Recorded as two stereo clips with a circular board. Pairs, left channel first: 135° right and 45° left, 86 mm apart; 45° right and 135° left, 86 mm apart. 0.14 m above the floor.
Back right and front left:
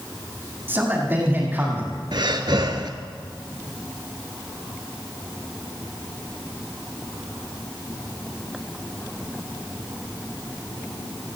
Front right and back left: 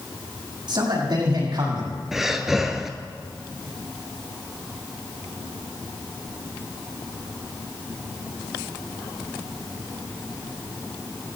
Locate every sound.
0.7 s a man speaking: 105° left, 6.5 m
2.1 s breathing: 50° left, 1.3 m